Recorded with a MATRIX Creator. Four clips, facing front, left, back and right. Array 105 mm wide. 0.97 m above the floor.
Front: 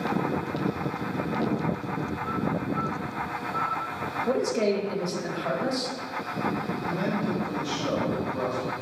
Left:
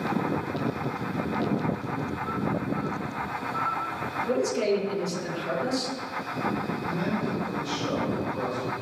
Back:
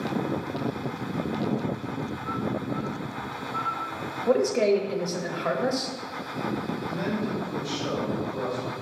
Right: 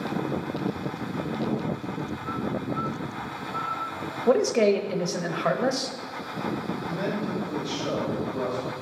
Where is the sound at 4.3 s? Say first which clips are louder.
Right 6 dB, back 4 dB; 95° right, 0.7 m.